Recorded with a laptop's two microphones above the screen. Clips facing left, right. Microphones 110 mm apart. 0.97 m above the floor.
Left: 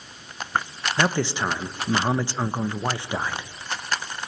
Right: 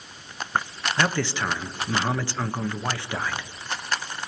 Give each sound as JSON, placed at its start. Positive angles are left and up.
{"t": 1.0, "sound": "a man speaking", "side_deg": 20, "distance_m": 0.7}